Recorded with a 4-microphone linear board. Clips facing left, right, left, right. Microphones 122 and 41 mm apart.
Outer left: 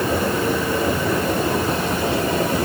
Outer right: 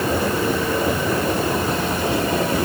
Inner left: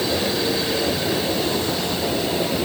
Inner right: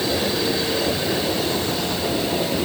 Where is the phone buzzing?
No phone buzzing in this recording.